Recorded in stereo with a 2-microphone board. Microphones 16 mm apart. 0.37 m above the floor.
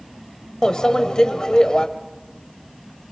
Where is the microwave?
40° left (ahead or behind), 1.3 m.